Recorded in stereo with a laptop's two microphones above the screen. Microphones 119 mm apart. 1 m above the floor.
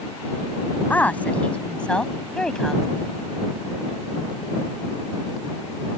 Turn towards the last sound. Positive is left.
turn(degrees=5)  # may be behind; listen again after turning